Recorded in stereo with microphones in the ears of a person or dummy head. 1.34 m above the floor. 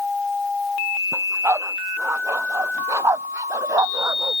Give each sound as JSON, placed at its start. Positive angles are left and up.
{"t": 1.1, "sound": "a dog barking", "side_deg": -10}